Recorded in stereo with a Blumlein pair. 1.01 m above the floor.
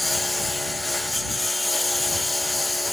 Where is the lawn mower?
5° left.